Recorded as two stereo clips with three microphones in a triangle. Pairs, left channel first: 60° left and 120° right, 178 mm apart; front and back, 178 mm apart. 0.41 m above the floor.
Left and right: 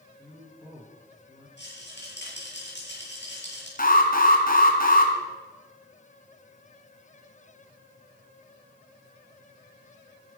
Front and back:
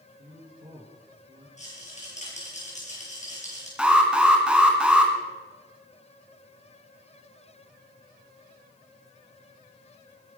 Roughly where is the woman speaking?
Behind left.